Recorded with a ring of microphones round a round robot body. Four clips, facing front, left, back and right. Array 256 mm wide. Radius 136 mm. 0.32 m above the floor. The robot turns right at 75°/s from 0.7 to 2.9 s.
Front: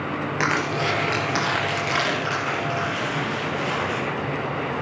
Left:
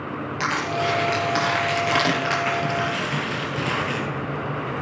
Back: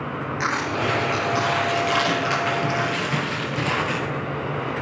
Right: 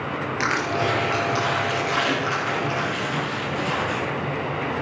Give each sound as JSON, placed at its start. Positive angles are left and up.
{"t": 0.4, "sound": "crushing", "azimuth_deg": -10, "distance_m": 4.0}